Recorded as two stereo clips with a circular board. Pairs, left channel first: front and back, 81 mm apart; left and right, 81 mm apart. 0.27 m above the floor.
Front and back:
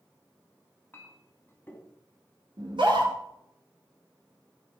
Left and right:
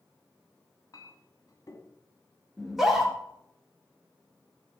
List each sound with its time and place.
0.9 s a clink: 60° left, 1.6 m
2.6 s a scream: 175° right, 3.5 m